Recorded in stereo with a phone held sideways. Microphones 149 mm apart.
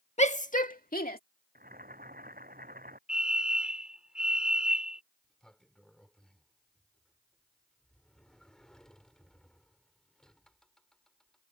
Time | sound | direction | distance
0.2 | a shout | 45° left (ahead or behind) | ?
1.6 | boiling | 70° right (ahead or behind) | ?
3.1 | a fire alarm | 5° right (ahead or behind) | ?
5.2 | a sliding door | 5° left (ahead or behind) | ?